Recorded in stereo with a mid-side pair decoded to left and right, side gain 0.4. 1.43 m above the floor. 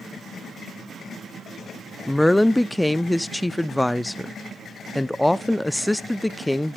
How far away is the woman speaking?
About 0.7 m.